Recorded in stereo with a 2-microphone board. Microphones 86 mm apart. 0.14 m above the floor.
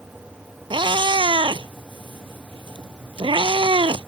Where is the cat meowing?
75° right (ahead or behind).